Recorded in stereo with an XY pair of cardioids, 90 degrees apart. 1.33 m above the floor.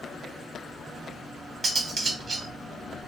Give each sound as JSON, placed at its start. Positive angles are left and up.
{"t": 1.6, "sound": "cutlery clinking", "azimuth_deg": -45, "distance_m": 1.4}